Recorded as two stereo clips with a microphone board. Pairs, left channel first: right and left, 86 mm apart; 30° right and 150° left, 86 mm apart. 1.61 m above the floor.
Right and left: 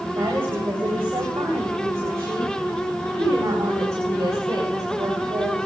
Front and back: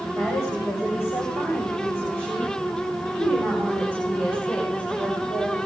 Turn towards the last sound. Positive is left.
turn(degrees=40)